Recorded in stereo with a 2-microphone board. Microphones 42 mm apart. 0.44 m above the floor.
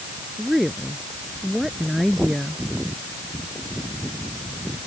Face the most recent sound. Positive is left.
turn(degrees=-5)  # may be behind; listen again after turning